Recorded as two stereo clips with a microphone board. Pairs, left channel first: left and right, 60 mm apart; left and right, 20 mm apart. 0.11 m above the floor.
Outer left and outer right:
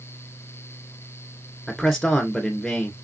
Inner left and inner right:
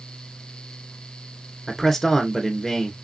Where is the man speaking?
5° left (ahead or behind), 1.5 m.